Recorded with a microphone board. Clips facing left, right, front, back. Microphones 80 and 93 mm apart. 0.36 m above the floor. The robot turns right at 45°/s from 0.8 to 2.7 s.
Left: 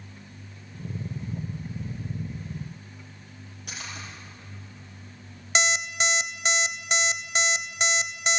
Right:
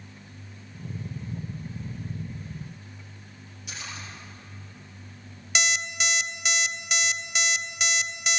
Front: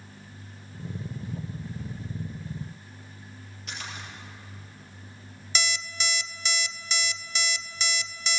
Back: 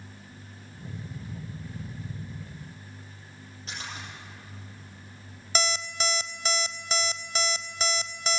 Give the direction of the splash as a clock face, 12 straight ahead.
8 o'clock.